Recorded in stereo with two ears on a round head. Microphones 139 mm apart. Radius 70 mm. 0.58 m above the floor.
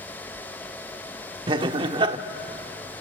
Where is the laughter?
30° right (ahead or behind), 1.2 m.